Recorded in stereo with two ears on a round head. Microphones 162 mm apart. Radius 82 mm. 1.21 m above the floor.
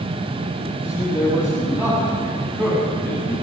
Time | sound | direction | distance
0.8 | a man speaking | 10° right (ahead or behind) | 8 m